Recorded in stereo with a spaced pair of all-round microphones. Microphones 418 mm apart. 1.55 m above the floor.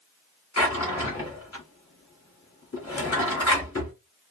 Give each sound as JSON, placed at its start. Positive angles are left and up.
{"t": 0.6, "sound": "a drawer", "side_deg": 35, "distance_m": 1.2}